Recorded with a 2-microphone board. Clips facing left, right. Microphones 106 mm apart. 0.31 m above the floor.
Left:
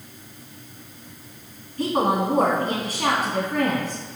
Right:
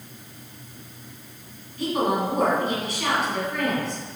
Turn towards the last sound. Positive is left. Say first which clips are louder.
# left 2 dB
turn(degrees=50)  # may be behind; listen again after turning